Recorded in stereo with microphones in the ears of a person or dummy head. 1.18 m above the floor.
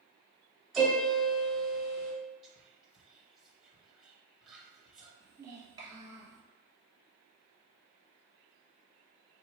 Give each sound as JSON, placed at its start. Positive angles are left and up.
{"t": 0.7, "sound": "a piano", "side_deg": -5, "distance_m": 1.0}
{"t": 2.4, "sound": "whispering", "side_deg": -5, "distance_m": 1.0}
{"t": 5.2, "sound": "a child speaking", "side_deg": -20, "distance_m": 1.2}